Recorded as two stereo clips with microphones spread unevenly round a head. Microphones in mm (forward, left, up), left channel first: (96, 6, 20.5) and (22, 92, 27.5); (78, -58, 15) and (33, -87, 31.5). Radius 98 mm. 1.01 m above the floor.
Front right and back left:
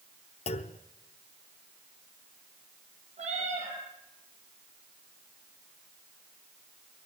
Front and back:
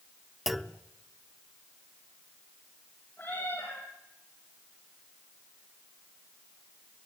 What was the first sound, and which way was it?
A clunk, 80° right.